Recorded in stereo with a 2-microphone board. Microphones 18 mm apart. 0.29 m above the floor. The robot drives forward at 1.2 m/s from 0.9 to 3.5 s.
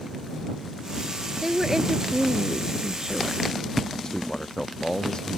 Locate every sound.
1.4 s a woman speaking: 15° right (ahead or behind); by 3.4 s 25° right (ahead or behind)
4.0 s a man speaking: 35° left (ahead or behind)